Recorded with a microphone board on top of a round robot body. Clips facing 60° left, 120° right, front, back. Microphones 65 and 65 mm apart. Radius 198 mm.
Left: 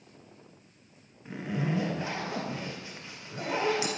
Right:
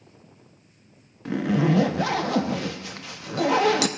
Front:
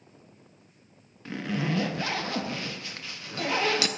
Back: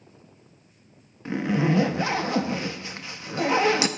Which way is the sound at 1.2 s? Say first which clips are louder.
Right 10 dB, back 7 dB; 110° right.